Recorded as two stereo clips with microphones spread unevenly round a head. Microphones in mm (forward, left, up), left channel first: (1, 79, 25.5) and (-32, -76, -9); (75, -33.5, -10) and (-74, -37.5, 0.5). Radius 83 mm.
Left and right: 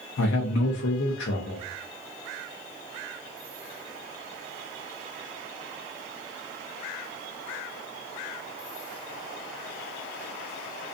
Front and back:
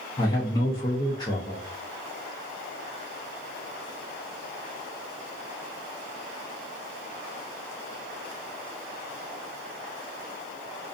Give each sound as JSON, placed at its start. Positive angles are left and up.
{"t": 0.2, "sound": "a man speaking", "azimuth_deg": 60, "distance_m": 0.5}